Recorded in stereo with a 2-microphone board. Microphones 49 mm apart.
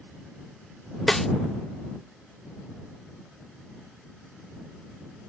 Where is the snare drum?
5° left (ahead or behind).